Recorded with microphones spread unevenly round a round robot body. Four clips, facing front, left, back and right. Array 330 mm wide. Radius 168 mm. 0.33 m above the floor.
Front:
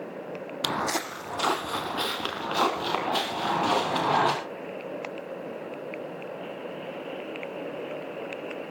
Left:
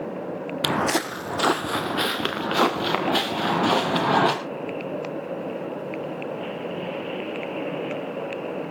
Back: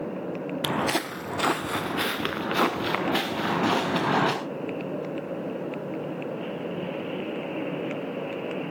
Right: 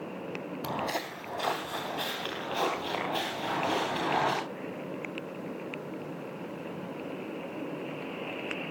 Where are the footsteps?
110° left, 0.5 m; by 4.3 s 130° left, 4 m.